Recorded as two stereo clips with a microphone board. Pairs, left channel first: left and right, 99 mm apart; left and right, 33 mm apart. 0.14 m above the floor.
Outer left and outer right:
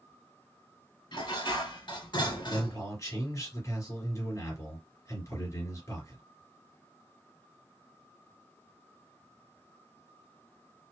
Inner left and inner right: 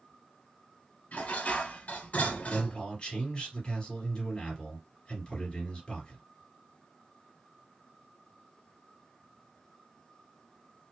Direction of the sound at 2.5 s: 30° left (ahead or behind).